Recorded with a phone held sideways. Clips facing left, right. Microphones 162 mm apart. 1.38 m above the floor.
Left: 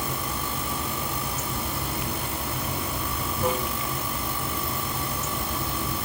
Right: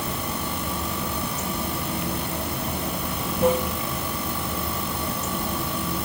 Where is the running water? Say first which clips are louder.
Right 2 dB; 60° right (ahead or behind), 1.4 m.